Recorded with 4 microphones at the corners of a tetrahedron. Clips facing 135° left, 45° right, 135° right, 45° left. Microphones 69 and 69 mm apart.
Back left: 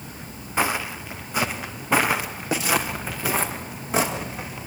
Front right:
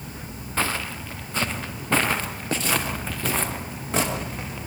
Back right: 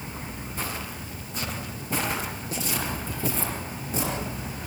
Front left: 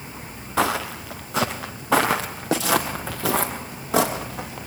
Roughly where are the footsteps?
Ahead left.